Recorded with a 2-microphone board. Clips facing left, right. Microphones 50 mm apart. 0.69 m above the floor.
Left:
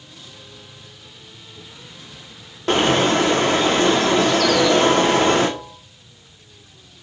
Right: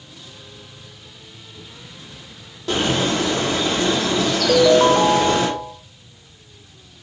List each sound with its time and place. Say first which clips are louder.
2.7 s a bird: left 4 dB; 50° left (ahead or behind), 1.7 m
4.5 s a ringtone: right 7 dB; 65° right (ahead or behind), 1.4 m